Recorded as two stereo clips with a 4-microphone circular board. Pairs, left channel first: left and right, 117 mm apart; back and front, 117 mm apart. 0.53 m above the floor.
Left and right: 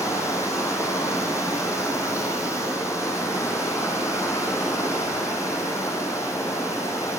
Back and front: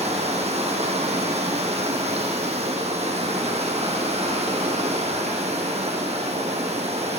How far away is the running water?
About 2 m.